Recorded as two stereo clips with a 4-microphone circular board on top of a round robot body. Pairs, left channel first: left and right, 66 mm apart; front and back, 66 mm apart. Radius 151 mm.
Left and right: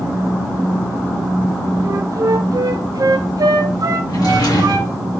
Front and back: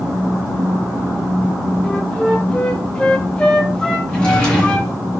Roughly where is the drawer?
Left.